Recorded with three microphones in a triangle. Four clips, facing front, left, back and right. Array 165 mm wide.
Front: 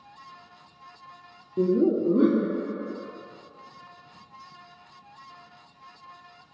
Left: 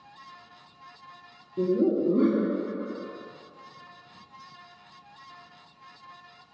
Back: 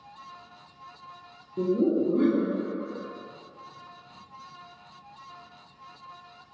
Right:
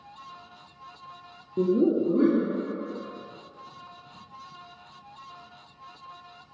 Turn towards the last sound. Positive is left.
turn(degrees=35)